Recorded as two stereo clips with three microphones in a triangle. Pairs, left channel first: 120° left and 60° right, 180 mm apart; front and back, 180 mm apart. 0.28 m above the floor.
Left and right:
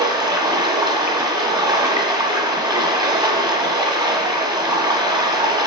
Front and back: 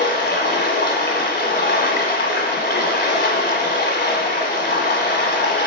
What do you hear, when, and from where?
0.0 s running water: 5° left, 1.2 m